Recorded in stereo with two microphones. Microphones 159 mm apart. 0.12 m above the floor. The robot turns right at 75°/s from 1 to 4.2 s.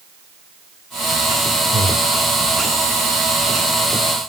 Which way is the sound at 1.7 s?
40° right (ahead or behind).